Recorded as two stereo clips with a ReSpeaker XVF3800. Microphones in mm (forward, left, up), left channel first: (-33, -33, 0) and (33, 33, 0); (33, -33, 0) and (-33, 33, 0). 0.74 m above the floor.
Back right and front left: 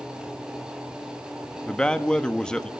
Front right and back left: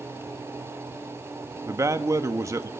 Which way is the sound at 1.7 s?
150° left.